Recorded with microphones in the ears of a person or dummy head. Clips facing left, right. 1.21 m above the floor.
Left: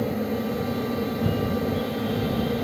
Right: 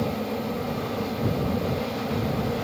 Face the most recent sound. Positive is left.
turn(degrees=15)  # may be behind; listen again after turning